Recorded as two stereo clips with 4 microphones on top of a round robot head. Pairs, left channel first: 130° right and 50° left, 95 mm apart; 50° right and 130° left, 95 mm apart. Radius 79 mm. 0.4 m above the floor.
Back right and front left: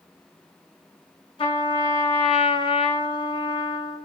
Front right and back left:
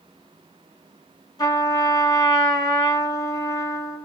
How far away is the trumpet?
About 1.4 m.